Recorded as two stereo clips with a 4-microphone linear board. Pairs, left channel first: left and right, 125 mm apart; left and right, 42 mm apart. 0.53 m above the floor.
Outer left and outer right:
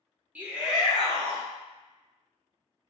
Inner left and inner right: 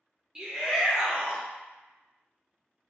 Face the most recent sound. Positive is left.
turn(degrees=0)  # may be behind; listen again after turning